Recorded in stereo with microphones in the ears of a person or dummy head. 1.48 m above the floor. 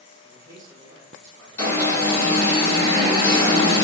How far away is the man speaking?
About 1.3 m.